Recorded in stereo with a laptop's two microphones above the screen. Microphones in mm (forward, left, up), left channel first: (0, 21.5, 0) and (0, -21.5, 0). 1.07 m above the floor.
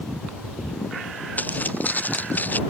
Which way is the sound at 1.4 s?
40° left (ahead or behind).